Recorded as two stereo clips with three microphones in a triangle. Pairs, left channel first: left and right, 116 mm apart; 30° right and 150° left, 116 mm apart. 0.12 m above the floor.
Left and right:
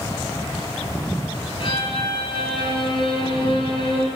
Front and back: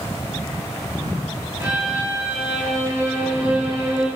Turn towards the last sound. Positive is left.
turn(degrees=85)